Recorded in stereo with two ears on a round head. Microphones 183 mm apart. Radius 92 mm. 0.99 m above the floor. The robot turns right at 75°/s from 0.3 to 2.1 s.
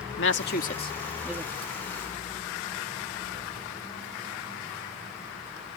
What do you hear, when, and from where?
0.2 s a woman speaking: 65° left (ahead or behind); by 1.5 s 20° right (ahead or behind)